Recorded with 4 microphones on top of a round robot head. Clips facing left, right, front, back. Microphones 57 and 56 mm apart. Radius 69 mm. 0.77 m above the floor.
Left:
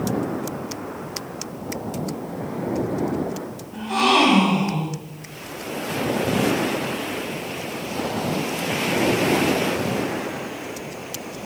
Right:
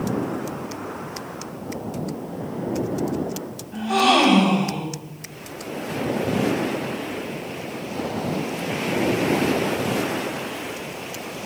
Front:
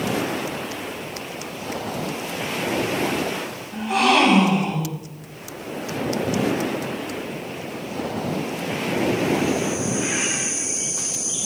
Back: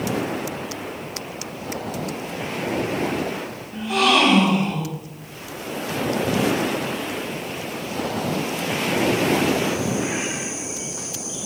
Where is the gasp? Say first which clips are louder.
Right 1 dB, even; 80° right, 4.5 m.